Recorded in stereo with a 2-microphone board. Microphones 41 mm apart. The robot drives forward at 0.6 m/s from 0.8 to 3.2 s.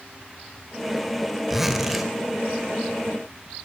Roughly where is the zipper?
Centre.